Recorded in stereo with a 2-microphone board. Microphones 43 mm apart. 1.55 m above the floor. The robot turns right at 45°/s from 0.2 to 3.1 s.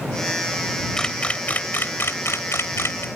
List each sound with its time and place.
1.0 s a camera shutter: 10° left (ahead or behind); by 3.0 s 70° left (ahead or behind)